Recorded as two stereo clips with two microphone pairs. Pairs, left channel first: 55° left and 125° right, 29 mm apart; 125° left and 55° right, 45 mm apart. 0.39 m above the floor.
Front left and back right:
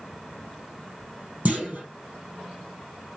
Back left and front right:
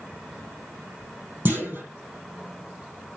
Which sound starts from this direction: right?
A clunk, at 1.4 s.